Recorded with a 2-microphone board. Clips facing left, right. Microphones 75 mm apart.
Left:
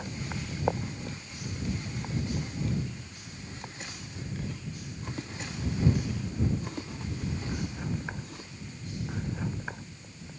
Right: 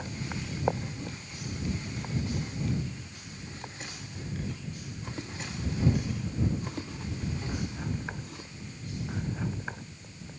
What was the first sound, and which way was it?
Only background noise.